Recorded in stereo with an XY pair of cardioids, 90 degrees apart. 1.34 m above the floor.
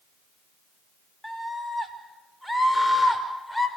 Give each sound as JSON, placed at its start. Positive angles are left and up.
{"t": 1.2, "sound": "a scream", "azimuth_deg": 0, "distance_m": 5.5}